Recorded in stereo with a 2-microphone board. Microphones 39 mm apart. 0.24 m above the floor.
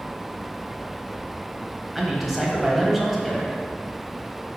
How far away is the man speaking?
About 1.1 m.